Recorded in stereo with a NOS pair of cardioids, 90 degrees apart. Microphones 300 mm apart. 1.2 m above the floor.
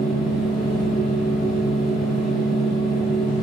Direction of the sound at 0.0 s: Straight ahead.